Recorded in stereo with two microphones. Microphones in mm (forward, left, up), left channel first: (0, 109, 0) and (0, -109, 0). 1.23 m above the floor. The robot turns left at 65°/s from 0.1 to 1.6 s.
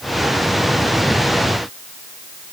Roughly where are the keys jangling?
No keys jangling in this recording.